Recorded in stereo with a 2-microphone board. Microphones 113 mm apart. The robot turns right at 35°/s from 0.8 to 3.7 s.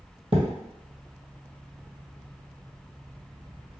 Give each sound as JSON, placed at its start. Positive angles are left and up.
{"t": 0.3, "sound": "a thud", "side_deg": -60, "distance_m": 1.4}